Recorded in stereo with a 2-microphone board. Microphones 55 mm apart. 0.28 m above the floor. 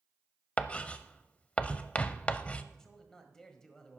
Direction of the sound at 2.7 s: 10° left (ahead or behind).